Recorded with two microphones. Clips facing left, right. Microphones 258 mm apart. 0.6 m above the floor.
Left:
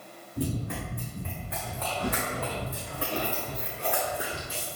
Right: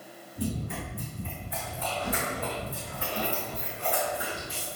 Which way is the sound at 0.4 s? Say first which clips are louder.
Left 1 dB; 70° left (ahead or behind).